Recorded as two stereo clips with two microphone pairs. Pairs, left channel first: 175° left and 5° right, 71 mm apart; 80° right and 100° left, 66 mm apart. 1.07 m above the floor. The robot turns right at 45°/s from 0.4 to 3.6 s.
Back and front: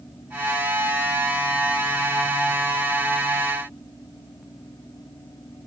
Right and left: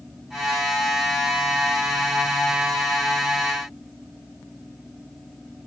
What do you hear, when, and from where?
Only background noise.